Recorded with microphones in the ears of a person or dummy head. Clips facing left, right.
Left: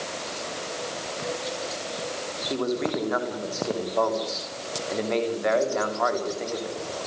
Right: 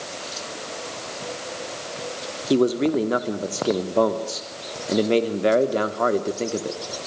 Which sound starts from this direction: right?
A man speaking, at 2.5 s.